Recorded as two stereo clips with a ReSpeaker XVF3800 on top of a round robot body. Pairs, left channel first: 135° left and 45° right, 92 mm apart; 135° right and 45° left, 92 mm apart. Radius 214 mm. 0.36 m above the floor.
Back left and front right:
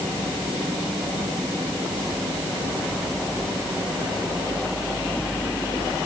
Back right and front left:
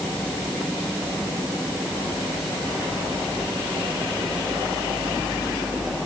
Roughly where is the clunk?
No clunk in this recording.